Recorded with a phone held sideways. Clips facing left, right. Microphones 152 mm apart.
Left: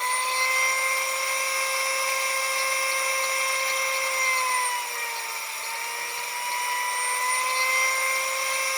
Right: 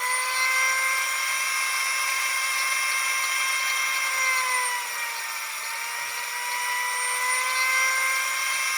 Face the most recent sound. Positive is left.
turn(degrees=25)  # may be behind; listen again after turning